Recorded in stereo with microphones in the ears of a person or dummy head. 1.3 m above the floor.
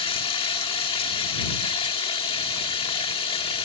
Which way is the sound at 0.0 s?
30° left (ahead or behind).